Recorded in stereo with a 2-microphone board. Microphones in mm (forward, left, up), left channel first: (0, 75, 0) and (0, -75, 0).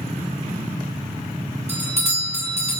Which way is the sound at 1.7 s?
45° right (ahead or behind).